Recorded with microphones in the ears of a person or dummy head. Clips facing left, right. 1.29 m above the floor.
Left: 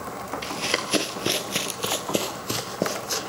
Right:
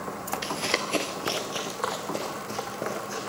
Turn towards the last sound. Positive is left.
turn(degrees=65)  # may be behind; listen again after turning